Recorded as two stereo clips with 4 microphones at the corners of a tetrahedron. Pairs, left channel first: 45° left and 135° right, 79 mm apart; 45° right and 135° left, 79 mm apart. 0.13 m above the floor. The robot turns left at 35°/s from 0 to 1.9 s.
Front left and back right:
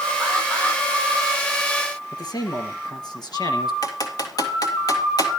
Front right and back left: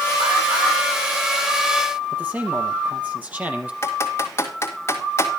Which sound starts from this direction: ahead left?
A man speaking, at 2.1 s.